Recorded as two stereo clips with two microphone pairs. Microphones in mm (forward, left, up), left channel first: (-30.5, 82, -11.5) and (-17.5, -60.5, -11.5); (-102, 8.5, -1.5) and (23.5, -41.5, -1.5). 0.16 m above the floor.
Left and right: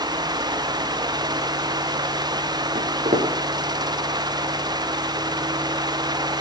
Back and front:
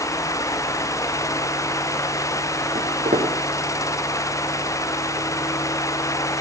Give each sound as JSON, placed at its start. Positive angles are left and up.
{"t": 2.8, "sound": "footsteps", "azimuth_deg": -50, "distance_m": 5.0}